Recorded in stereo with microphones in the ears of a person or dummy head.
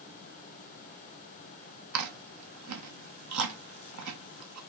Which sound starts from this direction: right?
Chewing, at 1.9 s.